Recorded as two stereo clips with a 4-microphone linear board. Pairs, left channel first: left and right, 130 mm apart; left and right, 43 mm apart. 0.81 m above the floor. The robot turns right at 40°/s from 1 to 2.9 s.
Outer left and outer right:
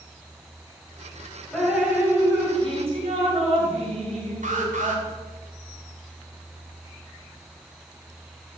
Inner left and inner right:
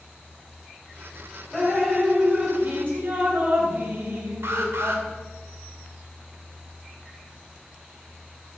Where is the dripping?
175° left, 3.5 m; by 5.0 s 130° right, 3.5 m.